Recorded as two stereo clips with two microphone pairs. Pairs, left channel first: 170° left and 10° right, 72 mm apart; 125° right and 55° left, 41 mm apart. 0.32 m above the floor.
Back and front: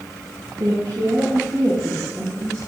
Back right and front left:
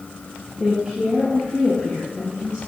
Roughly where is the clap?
No clap in this recording.